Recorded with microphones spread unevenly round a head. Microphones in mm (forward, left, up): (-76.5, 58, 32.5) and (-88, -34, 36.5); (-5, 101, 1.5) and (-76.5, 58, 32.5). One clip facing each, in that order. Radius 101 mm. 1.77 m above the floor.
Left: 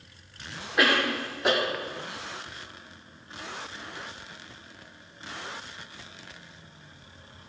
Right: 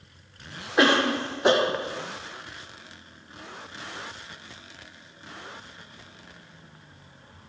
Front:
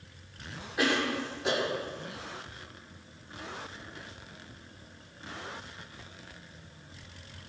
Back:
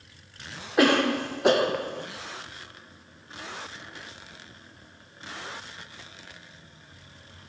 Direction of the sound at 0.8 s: 160° right.